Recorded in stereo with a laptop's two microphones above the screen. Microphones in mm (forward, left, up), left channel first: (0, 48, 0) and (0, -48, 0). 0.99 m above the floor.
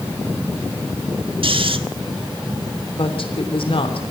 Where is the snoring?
65° right (ahead or behind), 1.3 m.